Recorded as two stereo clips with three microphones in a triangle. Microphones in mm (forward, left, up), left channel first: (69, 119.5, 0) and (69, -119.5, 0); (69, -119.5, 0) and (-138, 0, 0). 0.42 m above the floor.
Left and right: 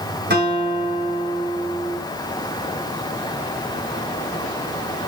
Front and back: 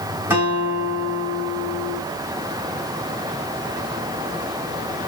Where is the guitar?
130° right, 3.5 m.